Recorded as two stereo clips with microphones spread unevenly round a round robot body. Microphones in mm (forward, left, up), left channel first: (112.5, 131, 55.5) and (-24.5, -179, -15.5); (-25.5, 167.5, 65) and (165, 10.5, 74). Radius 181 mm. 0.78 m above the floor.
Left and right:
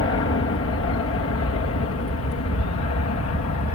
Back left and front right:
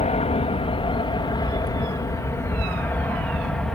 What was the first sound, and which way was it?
An aircraft, 105° left.